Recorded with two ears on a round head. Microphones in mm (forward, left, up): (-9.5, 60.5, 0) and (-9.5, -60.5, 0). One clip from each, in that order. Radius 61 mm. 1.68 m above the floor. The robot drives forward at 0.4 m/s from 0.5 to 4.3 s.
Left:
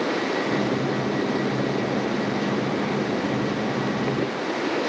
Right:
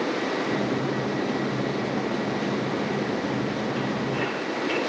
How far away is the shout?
No shout in this recording.